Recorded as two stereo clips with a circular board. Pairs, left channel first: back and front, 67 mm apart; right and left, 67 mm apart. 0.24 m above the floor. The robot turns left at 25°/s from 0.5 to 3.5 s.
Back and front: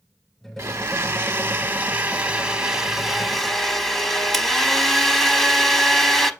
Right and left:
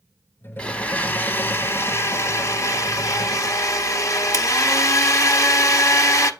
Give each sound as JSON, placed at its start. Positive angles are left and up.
{"t": 0.6, "sound": "a blender", "azimuth_deg": -25, "distance_m": 0.7}